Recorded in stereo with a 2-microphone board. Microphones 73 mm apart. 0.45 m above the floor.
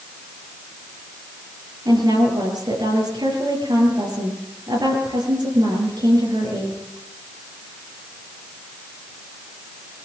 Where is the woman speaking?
85° right, 9.5 m.